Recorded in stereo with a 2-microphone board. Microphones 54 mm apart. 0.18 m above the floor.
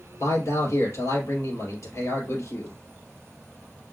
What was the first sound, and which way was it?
A man speaking, 60° left (ahead or behind).